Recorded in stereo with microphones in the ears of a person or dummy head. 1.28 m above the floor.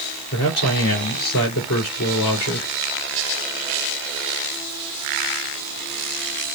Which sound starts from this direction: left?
A man speaking, at 0.3 s.